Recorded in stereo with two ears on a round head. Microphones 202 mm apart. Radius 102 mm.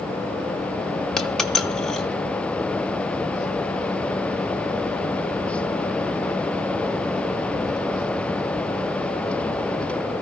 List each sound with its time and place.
1.2 s a dropped coin: 5° left (ahead or behind), 0.9 m